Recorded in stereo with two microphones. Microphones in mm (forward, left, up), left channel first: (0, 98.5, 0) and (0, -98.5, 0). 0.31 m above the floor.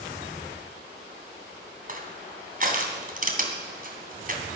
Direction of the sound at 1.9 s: 40° right (ahead or behind).